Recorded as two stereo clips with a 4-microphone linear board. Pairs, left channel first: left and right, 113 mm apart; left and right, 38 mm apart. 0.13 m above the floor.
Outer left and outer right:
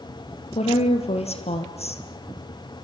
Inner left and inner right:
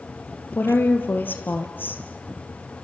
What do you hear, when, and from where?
0.6 s a woman speaking: 65° left (ahead or behind), 2.5 m